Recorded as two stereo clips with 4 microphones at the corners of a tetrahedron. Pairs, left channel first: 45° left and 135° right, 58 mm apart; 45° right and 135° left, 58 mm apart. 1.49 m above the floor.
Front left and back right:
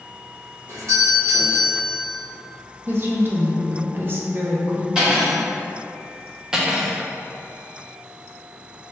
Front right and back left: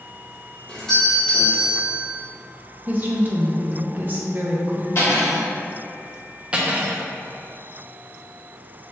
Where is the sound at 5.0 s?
65° right, 1.3 m.